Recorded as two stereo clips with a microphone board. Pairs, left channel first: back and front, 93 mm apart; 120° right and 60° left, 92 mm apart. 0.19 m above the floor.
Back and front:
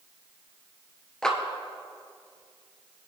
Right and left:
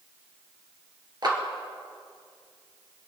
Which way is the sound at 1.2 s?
95° left.